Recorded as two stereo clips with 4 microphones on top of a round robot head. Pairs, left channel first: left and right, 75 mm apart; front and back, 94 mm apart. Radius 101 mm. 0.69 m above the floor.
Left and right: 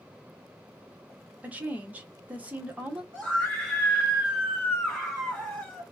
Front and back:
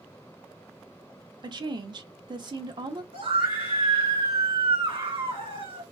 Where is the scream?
175° left, 3 m.